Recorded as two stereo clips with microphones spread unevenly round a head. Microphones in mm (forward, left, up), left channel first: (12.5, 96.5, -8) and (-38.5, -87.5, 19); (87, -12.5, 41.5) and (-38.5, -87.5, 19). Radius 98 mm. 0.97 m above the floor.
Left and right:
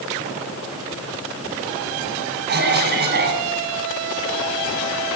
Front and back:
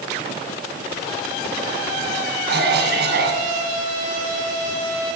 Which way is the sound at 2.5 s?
145° right.